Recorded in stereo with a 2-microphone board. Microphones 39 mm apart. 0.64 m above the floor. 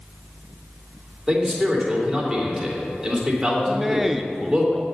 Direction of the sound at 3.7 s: 10° right (ahead or behind).